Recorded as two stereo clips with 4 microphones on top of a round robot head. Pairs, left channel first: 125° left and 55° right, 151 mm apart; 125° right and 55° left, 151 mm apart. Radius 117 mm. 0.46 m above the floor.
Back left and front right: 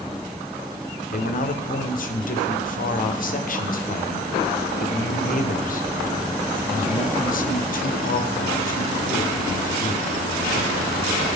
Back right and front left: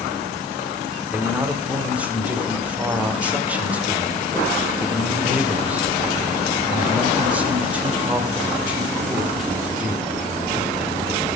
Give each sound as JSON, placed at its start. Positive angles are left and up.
{"t": 1.1, "sound": "a man speaking", "azimuth_deg": 135, "distance_m": 2.0}